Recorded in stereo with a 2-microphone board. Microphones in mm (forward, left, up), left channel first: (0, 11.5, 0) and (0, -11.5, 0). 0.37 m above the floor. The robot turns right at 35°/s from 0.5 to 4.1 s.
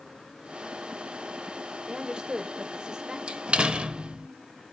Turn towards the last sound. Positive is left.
turn(degrees=-50)  # may be behind; listen again after turning